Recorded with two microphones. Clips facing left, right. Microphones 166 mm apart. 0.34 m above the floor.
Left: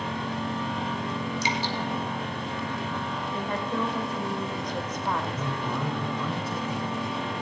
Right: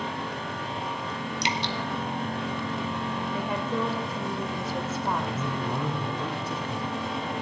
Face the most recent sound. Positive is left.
turn(degrees=-45)  # may be behind; listen again after turning